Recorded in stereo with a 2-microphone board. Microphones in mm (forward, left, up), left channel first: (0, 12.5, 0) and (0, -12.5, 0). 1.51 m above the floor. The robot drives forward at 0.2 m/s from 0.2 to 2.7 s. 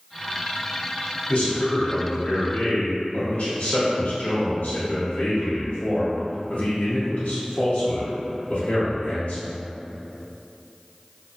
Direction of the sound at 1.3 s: 80° left.